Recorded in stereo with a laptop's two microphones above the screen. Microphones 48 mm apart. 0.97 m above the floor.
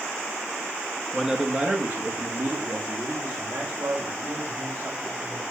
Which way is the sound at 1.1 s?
Centre (ahead or behind).